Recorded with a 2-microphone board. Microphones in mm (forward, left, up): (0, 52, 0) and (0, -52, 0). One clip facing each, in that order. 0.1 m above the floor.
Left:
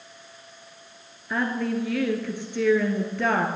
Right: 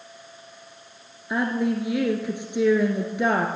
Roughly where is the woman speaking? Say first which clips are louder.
Right 2 dB; centre.